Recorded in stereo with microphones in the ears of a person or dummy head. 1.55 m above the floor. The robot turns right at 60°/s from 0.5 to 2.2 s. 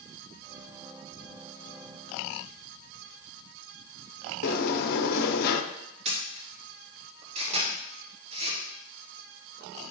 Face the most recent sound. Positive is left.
turn(degrees=-40)  # may be behind; listen again after turning